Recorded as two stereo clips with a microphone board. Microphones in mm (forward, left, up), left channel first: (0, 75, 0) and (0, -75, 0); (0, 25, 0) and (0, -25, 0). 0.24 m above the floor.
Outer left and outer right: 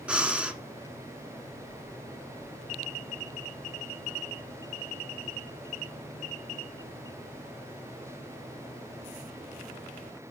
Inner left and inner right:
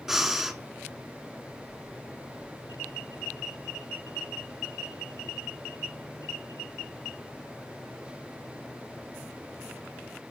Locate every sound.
0.1 s breathing: 10° right (ahead or behind), 1.1 m